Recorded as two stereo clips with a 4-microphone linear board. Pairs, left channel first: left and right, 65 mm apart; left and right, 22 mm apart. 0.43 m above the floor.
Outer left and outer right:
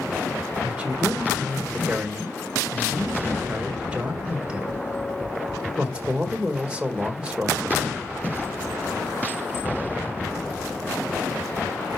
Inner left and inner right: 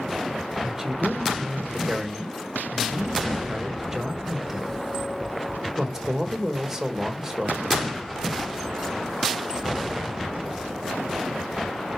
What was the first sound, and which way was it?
A man speaking, 20° right (ahead or behind).